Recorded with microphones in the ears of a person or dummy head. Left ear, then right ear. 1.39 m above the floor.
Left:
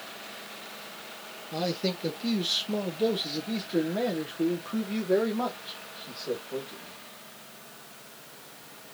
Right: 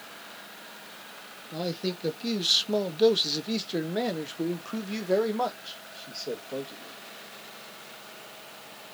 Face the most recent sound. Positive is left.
turn(degrees=-65)  # may be behind; listen again after turning